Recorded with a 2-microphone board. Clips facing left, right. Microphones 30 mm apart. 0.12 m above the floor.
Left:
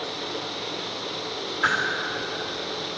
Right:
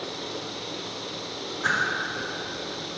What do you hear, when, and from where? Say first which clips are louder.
1.6 s a whoosh: left 3 dB; 55° left (ahead or behind), 1.6 m